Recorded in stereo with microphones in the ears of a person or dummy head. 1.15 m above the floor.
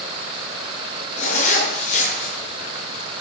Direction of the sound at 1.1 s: 45° left (ahead or behind).